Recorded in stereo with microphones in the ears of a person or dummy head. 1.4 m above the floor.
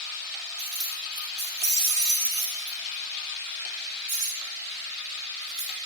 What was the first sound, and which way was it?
Keys jangling, 55° right (ahead or behind).